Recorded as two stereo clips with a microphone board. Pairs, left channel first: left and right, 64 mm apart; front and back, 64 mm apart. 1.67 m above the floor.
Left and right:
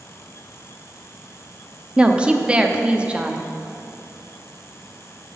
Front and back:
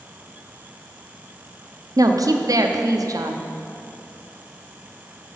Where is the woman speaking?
165° right, 0.8 m.